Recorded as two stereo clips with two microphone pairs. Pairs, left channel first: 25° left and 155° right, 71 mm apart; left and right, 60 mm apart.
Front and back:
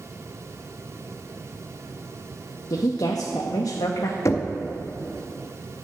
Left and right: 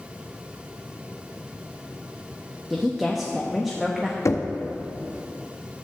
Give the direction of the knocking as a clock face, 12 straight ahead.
10 o'clock.